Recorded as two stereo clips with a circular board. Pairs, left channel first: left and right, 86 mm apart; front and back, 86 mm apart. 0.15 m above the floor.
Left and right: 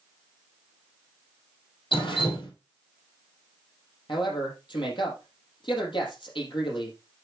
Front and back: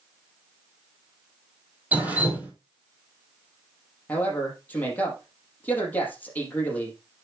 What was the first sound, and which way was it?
Dripping, 110° left.